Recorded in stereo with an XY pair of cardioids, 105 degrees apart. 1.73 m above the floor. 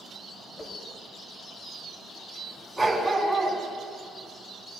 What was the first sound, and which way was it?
A whoosh, 35° left.